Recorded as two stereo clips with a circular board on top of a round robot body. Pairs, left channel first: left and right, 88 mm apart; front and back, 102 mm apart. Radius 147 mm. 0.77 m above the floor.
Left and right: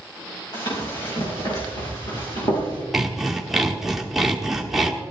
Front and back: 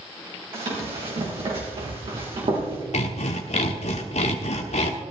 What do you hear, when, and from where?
0.5 s running footsteps: 145° left, 5 m; by 2.8 s 140° left, 4 m
2.9 s sawing: 5° right, 1.3 m